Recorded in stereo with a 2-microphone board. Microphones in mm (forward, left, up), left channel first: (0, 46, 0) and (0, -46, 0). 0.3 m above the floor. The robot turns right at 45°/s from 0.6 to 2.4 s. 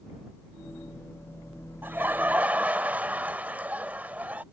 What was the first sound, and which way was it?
Laughter, 20° right (ahead or behind).